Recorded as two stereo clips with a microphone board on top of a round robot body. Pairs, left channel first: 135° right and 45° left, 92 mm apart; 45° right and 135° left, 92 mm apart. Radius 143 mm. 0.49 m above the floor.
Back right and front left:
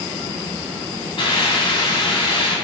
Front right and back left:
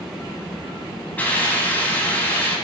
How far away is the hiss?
About 5 m.